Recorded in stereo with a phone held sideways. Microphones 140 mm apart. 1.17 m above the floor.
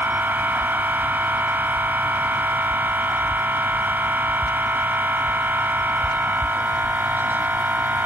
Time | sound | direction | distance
0.0 | a machine running | 15° right (ahead or behind) | ?